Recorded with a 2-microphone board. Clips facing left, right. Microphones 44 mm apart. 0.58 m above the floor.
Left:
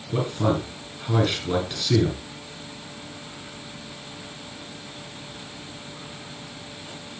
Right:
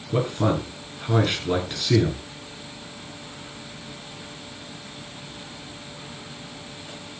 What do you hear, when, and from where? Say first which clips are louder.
0.1 s a man speaking: right 1 dB; 15° right (ahead or behind), 8 m